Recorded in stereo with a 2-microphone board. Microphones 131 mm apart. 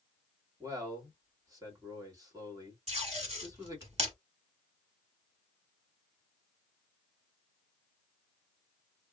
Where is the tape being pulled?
55° right (ahead or behind), 2 m.